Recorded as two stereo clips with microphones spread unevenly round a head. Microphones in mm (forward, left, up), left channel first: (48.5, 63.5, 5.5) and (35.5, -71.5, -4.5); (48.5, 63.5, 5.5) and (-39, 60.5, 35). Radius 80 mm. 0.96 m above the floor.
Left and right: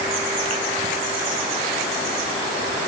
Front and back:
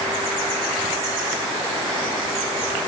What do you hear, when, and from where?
Only background noise.